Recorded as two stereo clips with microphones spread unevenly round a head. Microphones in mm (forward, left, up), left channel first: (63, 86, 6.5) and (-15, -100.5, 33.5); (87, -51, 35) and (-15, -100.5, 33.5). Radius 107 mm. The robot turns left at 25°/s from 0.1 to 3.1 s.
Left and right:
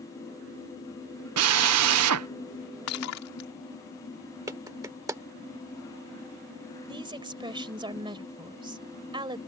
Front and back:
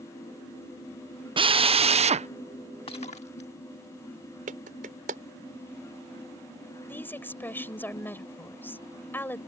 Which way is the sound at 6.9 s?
45° right.